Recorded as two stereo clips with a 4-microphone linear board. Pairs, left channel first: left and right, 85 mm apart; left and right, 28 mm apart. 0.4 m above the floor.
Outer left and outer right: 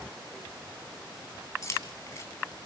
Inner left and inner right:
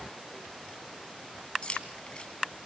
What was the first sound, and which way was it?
Keys jangling, 40° left (ahead or behind).